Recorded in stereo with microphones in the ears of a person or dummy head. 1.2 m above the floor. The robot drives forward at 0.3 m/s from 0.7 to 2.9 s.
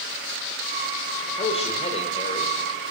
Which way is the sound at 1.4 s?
35° left (ahead or behind).